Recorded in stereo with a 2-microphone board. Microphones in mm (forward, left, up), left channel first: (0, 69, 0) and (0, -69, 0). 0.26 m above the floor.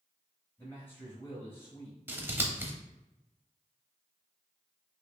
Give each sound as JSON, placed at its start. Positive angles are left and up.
{"t": 0.6, "sound": "a man speaking", "side_deg": 15, "distance_m": 1.1}
{"t": 2.1, "sound": "scissors", "side_deg": -15, "distance_m": 0.7}